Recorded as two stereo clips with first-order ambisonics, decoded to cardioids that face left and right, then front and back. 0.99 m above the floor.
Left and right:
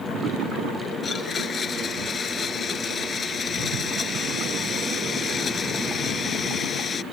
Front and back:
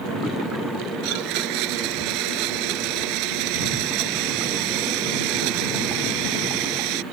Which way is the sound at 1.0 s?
160° left.